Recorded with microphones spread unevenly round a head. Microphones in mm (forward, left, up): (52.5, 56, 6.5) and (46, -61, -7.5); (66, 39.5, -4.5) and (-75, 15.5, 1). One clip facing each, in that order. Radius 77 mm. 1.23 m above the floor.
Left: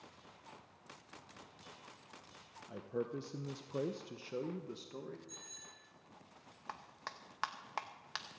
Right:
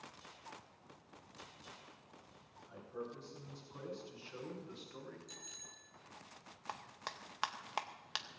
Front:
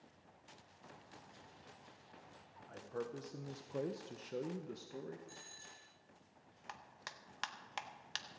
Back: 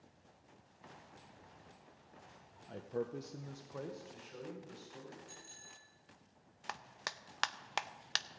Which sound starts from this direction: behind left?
A man speaking, at 2.7 s.